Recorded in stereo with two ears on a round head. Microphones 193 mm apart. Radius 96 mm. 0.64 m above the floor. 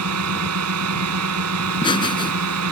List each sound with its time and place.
0.0 s a drone: 80° right
1.6 s laughter: 20° left (ahead or behind)